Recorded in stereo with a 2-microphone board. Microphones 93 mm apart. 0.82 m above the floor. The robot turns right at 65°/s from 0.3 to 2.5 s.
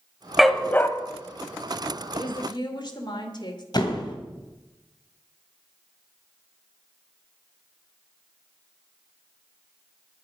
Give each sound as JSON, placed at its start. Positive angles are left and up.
{"t": 0.4, "sound": "a dog barking", "azimuth_deg": 0, "distance_m": 1.2}
{"t": 2.1, "sound": "a woman speaking", "side_deg": 75, "distance_m": 2.5}
{"t": 3.7, "sound": "a door slam", "side_deg": 50, "distance_m": 3.0}